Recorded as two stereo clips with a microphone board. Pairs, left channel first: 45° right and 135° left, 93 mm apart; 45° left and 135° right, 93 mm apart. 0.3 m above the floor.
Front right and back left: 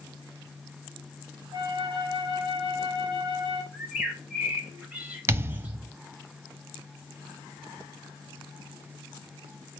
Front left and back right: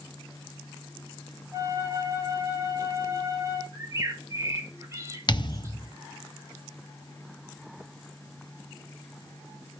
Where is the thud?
75° left, 0.5 m.